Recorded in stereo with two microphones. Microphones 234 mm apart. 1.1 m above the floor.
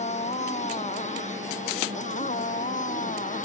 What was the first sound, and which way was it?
A motorcycle, 30° left (ahead or behind).